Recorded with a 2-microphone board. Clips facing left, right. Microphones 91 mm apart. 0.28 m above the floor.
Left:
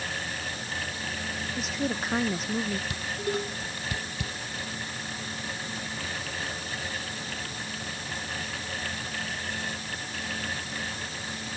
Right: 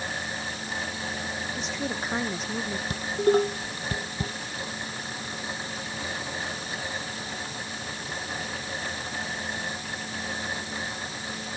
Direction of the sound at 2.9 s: 40° right (ahead or behind).